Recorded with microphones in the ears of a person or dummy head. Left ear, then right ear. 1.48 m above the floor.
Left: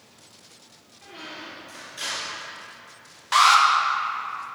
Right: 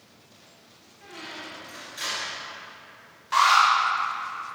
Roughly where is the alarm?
Left.